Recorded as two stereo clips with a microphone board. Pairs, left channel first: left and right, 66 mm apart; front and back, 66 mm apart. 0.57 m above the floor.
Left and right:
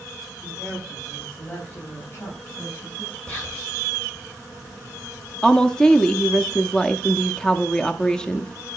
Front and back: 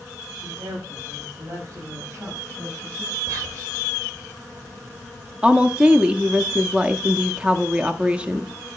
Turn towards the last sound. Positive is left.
turn(degrees=145)